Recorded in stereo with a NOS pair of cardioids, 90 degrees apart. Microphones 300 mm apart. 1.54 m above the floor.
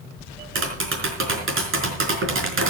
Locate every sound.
0.6 s tapping: 45° right, 4.5 m